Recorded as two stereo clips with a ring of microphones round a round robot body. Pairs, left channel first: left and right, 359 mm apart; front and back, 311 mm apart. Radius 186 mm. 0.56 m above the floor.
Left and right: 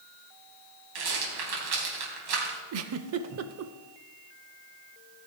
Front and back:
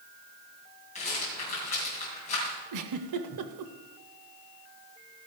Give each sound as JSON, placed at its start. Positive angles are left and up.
{"t": 0.9, "sound": "a rattle", "azimuth_deg": -70, "distance_m": 3.0}
{"t": 2.7, "sound": "a giggle", "azimuth_deg": -140, "distance_m": 0.6}